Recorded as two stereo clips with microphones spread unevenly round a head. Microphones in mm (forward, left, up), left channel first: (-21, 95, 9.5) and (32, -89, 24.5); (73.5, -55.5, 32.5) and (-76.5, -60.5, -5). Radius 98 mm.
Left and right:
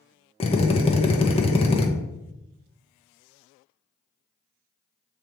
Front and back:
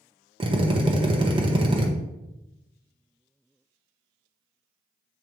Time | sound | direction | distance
0.4 | a drill | 155° left | 0.9 m